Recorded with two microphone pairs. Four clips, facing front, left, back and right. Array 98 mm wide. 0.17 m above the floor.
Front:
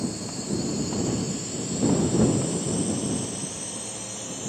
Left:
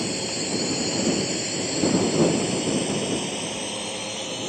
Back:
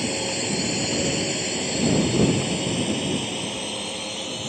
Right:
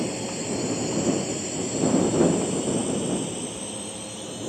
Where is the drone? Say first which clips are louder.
Even, back 4 dB; 165° left; by 4.5 s 115° left.